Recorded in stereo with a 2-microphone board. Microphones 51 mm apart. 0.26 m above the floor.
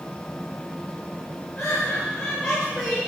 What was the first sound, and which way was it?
Laughter, 35° left (ahead or behind).